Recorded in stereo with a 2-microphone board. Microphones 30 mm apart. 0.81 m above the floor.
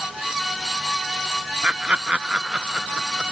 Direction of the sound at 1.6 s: 40° right (ahead or behind).